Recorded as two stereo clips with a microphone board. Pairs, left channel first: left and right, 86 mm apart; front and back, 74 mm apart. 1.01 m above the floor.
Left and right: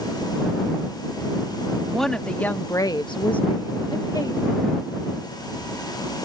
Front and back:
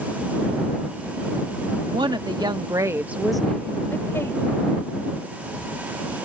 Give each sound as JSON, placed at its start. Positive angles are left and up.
{"t": 1.9, "sound": "a woman speaking", "azimuth_deg": 175}